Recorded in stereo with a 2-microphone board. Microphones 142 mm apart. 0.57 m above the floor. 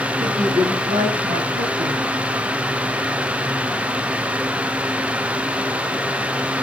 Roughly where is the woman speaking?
Right.